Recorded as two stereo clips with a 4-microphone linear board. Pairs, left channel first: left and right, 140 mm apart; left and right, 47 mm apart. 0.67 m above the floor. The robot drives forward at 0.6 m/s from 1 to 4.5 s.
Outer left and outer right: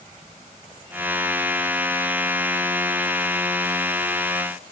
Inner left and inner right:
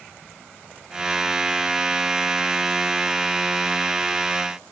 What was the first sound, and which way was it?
Only background noise.